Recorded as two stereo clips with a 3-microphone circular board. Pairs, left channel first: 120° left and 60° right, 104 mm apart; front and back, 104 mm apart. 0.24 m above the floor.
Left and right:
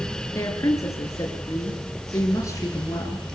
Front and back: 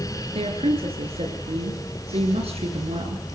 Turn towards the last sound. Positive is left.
turn(degrees=180)